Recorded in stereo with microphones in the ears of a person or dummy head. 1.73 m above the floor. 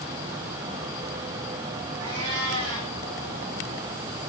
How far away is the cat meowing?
About 8 m.